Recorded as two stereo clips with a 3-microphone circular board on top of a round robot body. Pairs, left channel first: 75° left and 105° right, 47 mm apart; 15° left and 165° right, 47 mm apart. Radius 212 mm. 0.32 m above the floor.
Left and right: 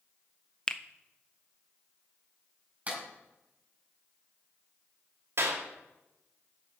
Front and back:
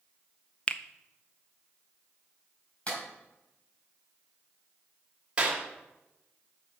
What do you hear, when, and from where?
0.7 s a finger snap: 30° left, 0.8 m
2.9 s a clap: 45° right, 4.5 m
5.4 s a clap: 100° right, 2.5 m